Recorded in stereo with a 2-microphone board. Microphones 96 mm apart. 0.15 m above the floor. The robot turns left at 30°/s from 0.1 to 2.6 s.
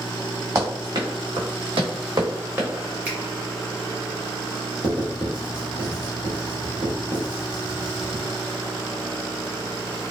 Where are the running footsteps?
30° right (ahead or behind), 1.3 m; by 2.7 s 20° right (ahead or behind), 1.2 m.